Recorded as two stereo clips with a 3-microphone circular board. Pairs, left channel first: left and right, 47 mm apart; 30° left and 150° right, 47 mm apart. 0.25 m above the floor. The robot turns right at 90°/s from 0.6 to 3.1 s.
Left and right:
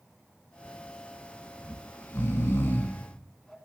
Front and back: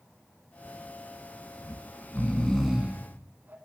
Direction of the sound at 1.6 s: 25° left.